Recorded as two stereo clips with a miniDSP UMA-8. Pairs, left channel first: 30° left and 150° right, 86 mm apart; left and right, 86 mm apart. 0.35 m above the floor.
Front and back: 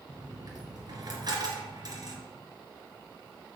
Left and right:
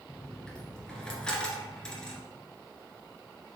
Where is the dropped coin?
170° left, 2 m.